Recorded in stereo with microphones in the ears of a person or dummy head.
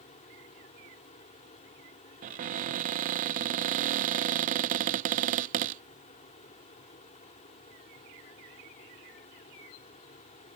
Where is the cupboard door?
40° right (ahead or behind).